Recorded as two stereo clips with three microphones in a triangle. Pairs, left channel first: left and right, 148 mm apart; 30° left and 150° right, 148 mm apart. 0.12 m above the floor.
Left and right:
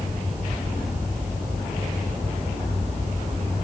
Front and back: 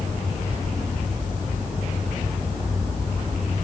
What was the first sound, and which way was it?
Only background noise.